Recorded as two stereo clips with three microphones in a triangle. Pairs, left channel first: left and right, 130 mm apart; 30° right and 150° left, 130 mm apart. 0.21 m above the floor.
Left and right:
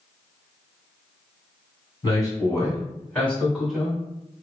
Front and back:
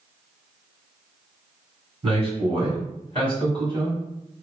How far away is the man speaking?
About 1.8 m.